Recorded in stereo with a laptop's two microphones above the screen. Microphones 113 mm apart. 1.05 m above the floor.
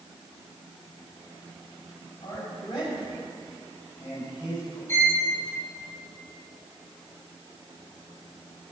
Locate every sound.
2.2 s a man speaking: 45° left (ahead or behind), 5 m; by 4.8 s 35° left (ahead or behind), 7 m
4.9 s a violin: 20° left (ahead or behind), 1.7 m